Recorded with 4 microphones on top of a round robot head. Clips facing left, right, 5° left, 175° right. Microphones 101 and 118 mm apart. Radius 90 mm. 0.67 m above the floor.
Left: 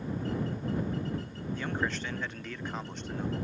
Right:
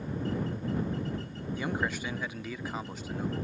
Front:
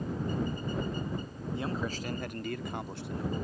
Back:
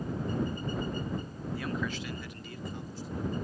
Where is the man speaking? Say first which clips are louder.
Right 1 dB, even; 25° right; by 3.5 s 5° right.